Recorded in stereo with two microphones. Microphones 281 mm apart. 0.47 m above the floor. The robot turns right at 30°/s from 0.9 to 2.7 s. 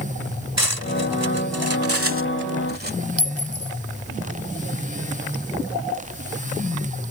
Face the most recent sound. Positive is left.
turn(degrees=55)  # may be behind; listen again after turning